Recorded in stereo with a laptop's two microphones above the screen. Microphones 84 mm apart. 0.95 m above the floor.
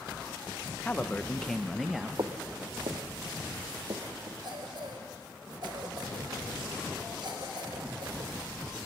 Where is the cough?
65° right (ahead or behind), 4.5 m.